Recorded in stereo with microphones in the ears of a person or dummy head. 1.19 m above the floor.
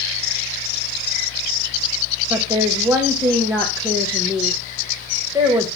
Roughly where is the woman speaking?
Centre.